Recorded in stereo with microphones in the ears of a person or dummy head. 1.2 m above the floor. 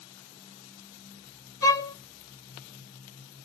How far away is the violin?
About 0.6 m.